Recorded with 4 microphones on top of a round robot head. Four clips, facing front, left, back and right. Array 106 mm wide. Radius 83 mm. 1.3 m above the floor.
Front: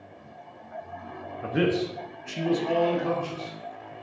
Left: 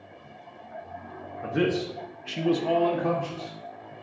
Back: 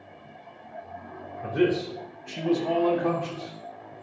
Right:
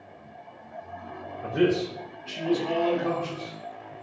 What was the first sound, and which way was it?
A man speaking, 20° left.